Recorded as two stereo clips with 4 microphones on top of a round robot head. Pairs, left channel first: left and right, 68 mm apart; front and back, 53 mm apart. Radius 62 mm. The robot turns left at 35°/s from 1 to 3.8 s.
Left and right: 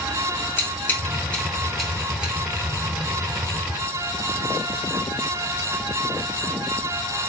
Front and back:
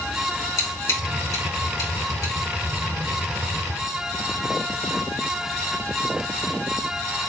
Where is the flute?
No flute in this recording.